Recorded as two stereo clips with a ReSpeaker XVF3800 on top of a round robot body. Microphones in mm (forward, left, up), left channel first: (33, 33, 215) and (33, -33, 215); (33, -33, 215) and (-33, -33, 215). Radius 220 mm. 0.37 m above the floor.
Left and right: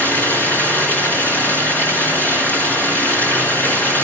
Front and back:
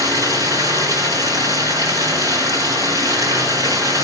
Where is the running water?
155° left, 3.5 m.